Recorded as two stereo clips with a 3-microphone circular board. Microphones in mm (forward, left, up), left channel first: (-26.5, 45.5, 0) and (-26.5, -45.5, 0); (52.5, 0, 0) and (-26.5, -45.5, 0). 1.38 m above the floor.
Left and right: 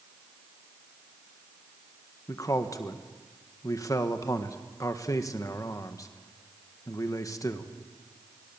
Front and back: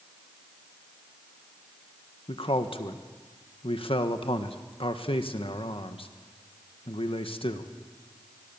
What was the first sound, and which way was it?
A man speaking, 35° left.